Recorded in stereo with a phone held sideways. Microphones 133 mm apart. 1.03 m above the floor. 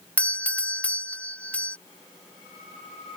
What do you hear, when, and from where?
0.2 s a doorbell: 10° left (ahead or behind)